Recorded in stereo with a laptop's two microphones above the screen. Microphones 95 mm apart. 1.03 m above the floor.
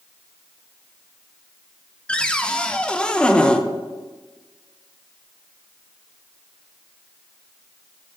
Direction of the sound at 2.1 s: 10° left (ahead or behind).